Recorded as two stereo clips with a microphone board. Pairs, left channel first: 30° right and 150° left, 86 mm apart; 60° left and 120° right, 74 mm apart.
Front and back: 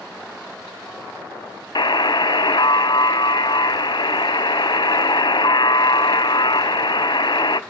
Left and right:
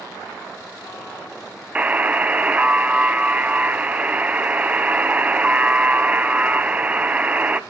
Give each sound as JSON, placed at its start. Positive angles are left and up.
{"t": 1.8, "sound": "a buzzer", "azimuth_deg": -50, "distance_m": 0.6}